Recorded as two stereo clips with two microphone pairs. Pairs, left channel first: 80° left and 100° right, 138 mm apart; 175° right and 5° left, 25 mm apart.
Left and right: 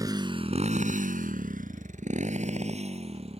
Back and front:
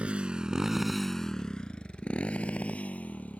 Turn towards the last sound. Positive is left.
turn(degrees=-145)